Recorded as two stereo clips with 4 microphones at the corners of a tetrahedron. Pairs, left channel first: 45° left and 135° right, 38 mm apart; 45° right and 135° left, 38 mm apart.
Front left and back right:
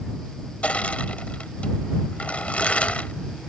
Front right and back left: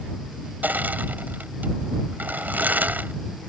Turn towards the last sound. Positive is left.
turn(degrees=100)